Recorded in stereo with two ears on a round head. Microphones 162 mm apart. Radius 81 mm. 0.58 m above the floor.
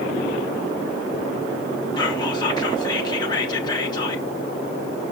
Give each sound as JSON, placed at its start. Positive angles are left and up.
{"t": 2.0, "sound": "whispering", "side_deg": 25, "distance_m": 1.0}